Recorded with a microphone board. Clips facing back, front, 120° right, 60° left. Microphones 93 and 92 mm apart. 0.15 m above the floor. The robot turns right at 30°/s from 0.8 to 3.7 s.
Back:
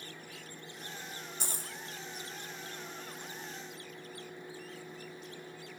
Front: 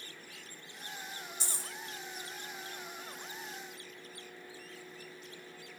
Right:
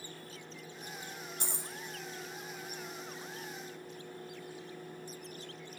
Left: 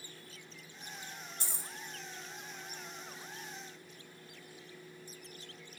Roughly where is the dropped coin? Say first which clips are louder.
Back 2 dB, right 4 dB; behind right.